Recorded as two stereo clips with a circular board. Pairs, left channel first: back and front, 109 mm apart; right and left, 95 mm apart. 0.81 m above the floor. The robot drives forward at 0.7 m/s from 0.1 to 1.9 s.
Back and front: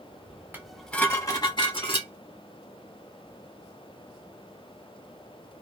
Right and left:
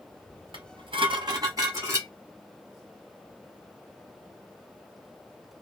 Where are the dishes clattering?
70° left, 0.6 m; by 2.1 s 150° left, 0.9 m.